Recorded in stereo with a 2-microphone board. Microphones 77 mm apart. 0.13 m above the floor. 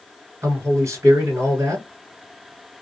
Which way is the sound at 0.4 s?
40° right (ahead or behind).